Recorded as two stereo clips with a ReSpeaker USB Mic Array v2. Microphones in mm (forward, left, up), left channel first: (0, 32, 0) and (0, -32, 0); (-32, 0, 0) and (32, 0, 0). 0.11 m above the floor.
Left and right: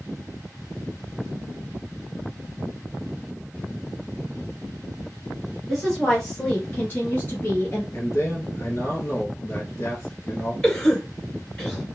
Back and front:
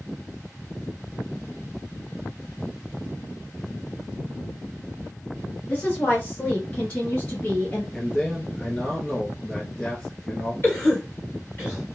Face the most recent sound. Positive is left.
turn(degrees=165)